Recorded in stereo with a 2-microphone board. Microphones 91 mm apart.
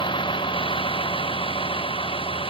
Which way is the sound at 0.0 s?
65° left (ahead or behind).